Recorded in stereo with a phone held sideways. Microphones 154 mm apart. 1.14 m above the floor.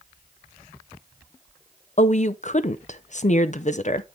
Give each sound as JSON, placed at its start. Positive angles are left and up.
{"t": 2.0, "sound": "a woman speaking", "side_deg": 50, "distance_m": 0.5}